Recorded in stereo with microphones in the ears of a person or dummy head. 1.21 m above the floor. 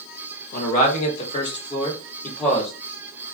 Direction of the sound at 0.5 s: 50° left (ahead or behind).